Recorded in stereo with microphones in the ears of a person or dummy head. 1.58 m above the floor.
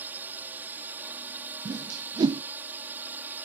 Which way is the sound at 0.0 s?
10° right (ahead or behind).